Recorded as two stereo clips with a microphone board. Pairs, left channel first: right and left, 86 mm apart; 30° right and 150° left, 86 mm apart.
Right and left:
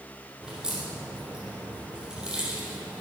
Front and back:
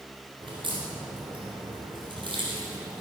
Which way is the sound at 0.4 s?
170° left.